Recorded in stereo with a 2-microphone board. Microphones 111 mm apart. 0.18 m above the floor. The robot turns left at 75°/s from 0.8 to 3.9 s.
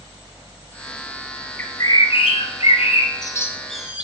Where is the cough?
I don't hear a cough.